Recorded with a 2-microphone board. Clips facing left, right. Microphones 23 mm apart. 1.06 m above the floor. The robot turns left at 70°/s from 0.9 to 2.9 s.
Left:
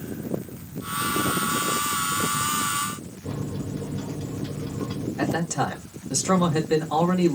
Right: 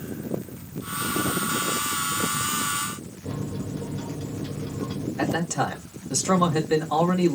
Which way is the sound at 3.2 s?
60° left (ahead or behind).